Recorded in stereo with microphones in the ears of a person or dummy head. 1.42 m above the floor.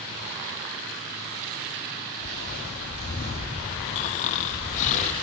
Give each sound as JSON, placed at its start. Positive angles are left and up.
{"t": 2.2, "sound": "footsteps", "side_deg": 45, "distance_m": 2.0}
{"t": 4.0, "sound": "snoring", "side_deg": 40, "distance_m": 0.8}